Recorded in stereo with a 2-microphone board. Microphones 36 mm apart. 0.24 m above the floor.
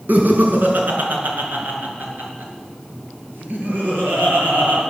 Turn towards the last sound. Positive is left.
turn(degrees=-65)  # may be behind; listen again after turning